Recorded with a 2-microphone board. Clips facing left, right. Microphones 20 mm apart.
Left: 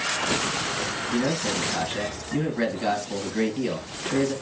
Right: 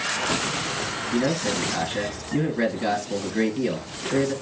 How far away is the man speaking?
About 1.8 m.